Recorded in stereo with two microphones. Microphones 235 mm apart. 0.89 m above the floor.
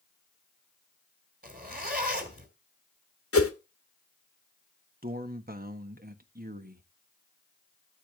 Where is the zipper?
40° right (ahead or behind), 2 m.